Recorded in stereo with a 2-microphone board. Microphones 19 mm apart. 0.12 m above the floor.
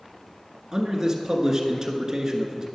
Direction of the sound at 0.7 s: 35° right (ahead or behind).